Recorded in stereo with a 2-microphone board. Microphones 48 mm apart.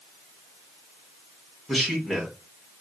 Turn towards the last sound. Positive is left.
turn(degrees=-5)  # may be behind; listen again after turning